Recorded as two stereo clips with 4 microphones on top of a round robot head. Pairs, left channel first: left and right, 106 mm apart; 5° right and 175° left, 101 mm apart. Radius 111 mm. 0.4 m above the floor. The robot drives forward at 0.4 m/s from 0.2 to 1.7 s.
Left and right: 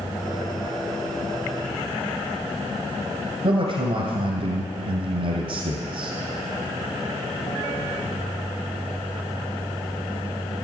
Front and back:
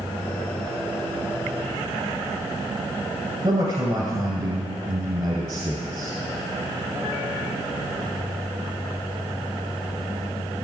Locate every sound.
3.4 s a man speaking: 130° right, 2.5 m